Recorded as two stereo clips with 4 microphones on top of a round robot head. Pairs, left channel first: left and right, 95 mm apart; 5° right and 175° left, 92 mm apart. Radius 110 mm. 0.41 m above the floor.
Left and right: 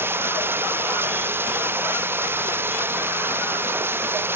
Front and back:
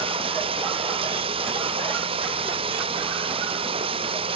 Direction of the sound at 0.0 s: 155° right.